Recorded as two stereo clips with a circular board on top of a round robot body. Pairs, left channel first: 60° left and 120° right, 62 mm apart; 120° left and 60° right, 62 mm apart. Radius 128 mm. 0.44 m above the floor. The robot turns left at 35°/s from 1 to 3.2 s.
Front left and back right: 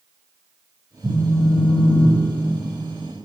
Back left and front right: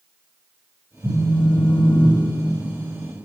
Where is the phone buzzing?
65° right, 3.5 m; by 3.1 s 140° right, 3.5 m.